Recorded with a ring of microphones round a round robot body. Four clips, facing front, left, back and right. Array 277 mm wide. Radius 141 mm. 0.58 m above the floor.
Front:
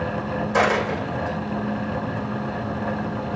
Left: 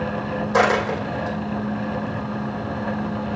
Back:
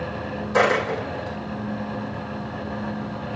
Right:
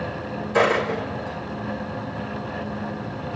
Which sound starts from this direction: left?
A dropped coin, at 0.5 s.